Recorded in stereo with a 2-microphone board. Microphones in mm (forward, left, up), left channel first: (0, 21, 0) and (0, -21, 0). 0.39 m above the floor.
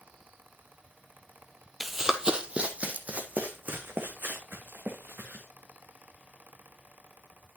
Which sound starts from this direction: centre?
Running footsteps, at 1.8 s.